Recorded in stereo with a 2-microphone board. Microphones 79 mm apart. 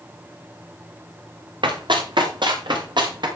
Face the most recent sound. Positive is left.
turn(degrees=-70)  # may be behind; listen again after turning